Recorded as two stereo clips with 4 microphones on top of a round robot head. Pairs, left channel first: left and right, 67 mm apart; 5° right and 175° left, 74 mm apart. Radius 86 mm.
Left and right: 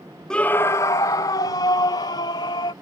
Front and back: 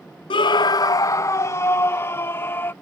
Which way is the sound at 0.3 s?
10° left.